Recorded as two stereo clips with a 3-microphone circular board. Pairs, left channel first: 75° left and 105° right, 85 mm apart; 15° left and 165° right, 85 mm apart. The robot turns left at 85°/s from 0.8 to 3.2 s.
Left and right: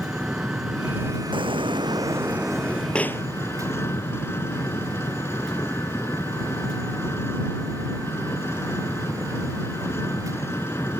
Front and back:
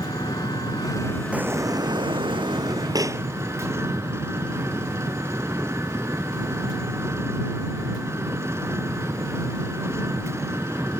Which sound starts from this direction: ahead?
An engine running, at 0.0 s.